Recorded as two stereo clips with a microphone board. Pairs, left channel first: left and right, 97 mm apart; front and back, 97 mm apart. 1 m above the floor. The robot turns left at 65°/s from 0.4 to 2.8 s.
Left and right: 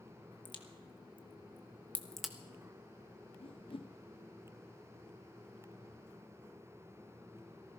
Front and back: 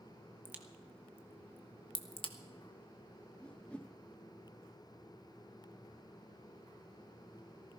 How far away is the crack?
About 1.2 m.